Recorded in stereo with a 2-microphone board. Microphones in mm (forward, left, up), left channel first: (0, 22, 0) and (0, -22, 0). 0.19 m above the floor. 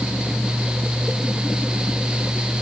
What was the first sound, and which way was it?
Only background noise.